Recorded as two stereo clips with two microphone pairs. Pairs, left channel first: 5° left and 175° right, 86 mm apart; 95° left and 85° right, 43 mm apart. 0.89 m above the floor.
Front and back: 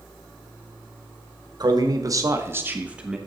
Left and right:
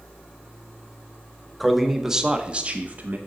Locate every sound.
1.6 s a man speaking: 170° right, 1.2 m; by 3.2 s 95° right, 1.1 m